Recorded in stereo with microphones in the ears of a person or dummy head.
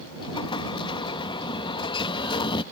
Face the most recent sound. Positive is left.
turn(degrees=25)  # may be behind; listen again after turning